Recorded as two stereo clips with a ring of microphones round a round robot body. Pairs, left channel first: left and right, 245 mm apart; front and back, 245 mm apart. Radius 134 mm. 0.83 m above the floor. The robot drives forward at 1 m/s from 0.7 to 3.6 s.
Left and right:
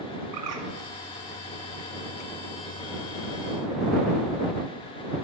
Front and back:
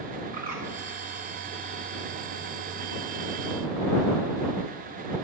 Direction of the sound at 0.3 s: 110° right.